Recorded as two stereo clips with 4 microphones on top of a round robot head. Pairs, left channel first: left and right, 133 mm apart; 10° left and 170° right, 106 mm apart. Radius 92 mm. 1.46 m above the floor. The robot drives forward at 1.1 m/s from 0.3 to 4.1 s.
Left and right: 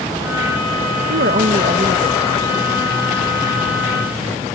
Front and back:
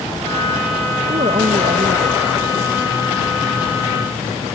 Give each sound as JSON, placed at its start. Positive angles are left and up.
{"t": 1.1, "sound": "a woman speaking", "azimuth_deg": -115}